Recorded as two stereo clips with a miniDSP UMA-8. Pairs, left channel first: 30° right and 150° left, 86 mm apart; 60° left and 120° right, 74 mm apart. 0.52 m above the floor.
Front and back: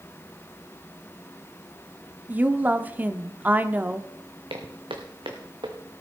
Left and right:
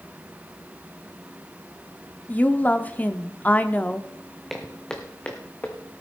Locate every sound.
2.3 s a woman speaking: 105° left, 0.7 m
4.5 s footsteps: 145° left, 1.9 m; by 5.8 s 125° left, 1.9 m